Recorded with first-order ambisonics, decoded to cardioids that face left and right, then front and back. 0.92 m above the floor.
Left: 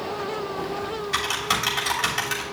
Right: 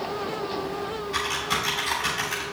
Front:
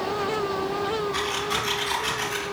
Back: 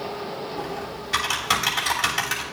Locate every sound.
0.6 s typing on a keyboard: 140° left, 3 m